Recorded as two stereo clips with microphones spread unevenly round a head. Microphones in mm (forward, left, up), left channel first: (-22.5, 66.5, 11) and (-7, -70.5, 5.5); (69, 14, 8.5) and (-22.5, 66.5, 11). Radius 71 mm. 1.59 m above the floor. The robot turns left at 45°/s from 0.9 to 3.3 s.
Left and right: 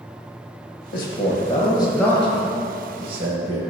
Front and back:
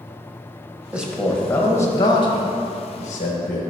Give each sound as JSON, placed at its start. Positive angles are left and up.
{"t": 0.9, "sound": "a man speaking", "azimuth_deg": 75, "distance_m": 1.5}